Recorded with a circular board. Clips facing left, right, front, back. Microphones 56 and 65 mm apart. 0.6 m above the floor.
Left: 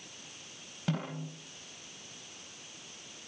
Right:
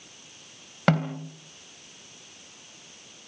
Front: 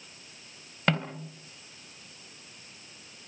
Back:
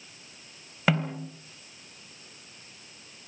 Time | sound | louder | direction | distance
0.9 | a snare drum | right 11 dB, back 2 dB | 95° right | 3 m